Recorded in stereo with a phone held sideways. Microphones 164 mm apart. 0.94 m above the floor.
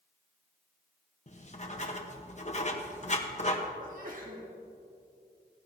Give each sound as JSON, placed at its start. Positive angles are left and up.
{"t": 1.3, "sound": "writing", "side_deg": 45, "distance_m": 1.1}
{"t": 3.8, "sound": "a sneeze", "side_deg": -55, "distance_m": 1.5}